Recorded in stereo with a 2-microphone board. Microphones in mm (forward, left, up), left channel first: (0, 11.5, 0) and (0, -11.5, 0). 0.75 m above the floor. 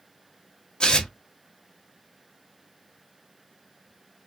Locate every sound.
0.8 s tearing paper: 35° left (ahead or behind), 1.0 m